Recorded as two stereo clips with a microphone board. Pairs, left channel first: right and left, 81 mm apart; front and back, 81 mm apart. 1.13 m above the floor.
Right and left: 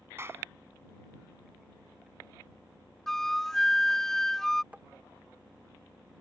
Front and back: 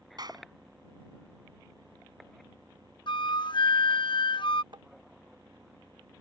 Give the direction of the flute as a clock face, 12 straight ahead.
12 o'clock.